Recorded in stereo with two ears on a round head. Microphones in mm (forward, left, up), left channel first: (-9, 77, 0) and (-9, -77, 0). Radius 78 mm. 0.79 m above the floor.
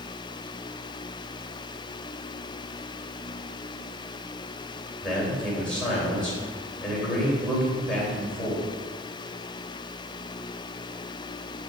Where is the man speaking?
5° left (ahead or behind), 3 m.